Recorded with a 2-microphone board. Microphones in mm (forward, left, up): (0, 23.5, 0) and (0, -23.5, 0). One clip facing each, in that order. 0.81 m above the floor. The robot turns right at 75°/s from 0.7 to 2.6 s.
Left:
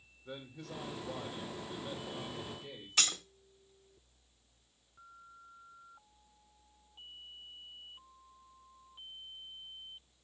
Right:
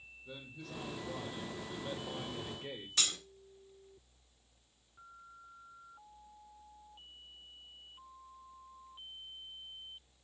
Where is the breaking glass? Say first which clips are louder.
Left 3 dB; 75° left (ahead or behind), 1.3 m.